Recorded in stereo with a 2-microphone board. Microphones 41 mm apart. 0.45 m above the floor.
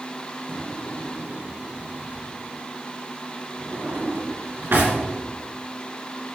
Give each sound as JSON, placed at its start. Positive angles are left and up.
{"t": 0.5, "sound": "a drawer", "side_deg": -75, "distance_m": 2.5}